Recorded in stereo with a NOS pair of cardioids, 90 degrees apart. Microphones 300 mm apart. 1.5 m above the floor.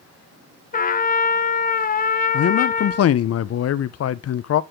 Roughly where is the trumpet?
Ahead left.